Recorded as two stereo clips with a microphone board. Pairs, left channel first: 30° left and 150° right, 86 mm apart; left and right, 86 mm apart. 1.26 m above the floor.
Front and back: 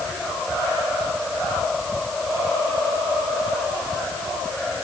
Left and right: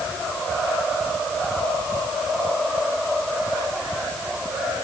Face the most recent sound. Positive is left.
No sound to turn to.